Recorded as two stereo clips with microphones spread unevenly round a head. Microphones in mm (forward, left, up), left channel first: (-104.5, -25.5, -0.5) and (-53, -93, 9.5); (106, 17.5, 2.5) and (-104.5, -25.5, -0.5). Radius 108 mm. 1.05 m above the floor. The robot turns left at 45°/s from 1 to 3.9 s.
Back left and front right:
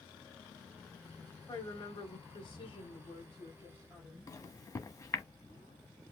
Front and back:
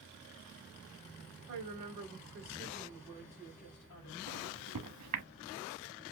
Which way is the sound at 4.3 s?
Straight behind.